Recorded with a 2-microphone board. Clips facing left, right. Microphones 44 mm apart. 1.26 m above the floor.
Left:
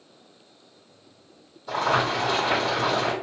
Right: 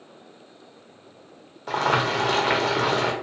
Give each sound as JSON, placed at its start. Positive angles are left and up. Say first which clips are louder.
{"t": 1.7, "sound": "boiling", "louder": "right 1 dB", "side_deg": -60, "distance_m": 0.8}